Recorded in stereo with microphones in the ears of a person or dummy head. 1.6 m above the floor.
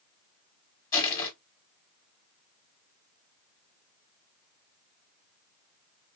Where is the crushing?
15° left (ahead or behind), 1.3 m.